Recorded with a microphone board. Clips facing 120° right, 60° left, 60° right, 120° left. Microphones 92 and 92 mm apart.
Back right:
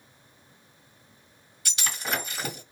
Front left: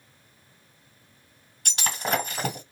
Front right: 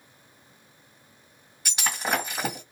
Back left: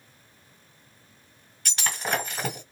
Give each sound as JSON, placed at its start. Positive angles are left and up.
{"t": 1.6, "sound": "breaking glass", "azimuth_deg": 20, "distance_m": 1.6}